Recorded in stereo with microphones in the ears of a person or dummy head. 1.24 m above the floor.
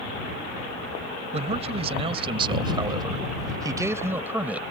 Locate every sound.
1.3 s a man speaking: 45° right (ahead or behind); by 4.6 s 15° right (ahead or behind)